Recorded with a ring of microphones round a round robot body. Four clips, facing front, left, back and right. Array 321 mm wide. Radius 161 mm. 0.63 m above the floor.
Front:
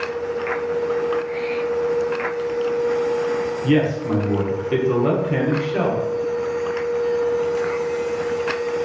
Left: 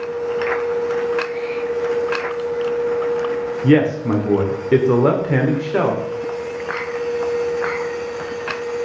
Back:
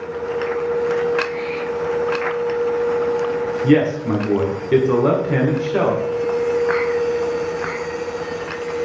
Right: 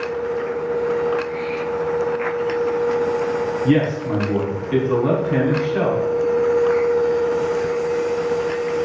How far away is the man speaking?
About 1.6 m.